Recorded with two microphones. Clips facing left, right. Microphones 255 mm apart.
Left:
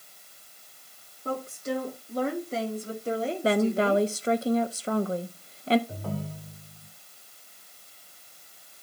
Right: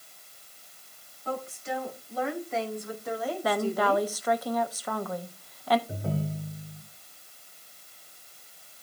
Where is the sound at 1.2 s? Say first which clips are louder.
Left 3 dB; 50° left (ahead or behind), 2.5 m; by 4.1 s 15° left (ahead or behind), 1.7 m.